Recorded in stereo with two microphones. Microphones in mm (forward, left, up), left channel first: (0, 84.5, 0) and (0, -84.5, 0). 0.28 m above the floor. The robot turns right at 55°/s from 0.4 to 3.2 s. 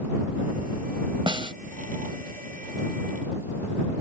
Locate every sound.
1.3 s a snare drum: 30° right (ahead or behind)